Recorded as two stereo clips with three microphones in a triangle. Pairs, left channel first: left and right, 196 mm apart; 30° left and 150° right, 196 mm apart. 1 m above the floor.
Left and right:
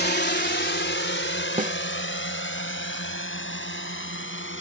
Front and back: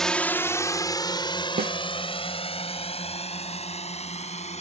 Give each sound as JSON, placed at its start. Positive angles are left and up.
{"t": 0.0, "sound": "a drone", "azimuth_deg": 120}
{"t": 1.6, "sound": "a snare drum", "azimuth_deg": -130}